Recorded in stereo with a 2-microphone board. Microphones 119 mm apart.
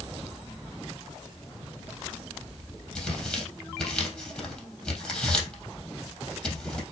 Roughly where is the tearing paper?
Centre.